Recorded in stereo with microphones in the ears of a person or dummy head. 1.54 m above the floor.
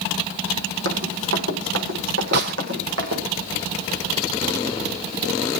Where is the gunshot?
55° right (ahead or behind), 0.8 m.